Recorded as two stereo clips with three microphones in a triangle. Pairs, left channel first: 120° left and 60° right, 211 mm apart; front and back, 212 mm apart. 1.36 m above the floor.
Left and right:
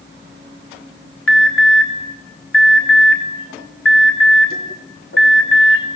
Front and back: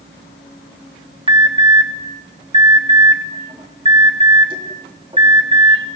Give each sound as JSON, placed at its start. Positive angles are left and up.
{"t": 1.3, "sound": "an alarm", "azimuth_deg": 115, "distance_m": 3.5}